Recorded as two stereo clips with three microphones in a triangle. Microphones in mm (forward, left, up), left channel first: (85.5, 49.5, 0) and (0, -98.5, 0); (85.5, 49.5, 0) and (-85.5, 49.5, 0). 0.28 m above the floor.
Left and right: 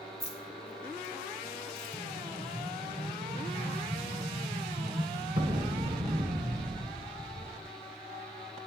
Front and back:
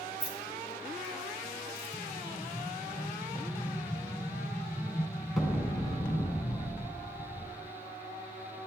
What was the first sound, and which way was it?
Keys jangling, 100° left.